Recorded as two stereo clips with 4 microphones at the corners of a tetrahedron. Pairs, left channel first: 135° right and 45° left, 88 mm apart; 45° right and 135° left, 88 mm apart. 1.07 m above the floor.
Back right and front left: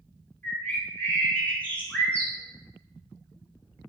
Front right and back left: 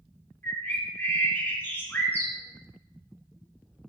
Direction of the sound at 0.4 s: 85° right.